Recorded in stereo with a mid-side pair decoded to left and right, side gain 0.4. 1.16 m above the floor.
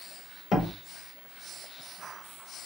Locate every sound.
0.5 s a door slam: 70° left, 2.0 m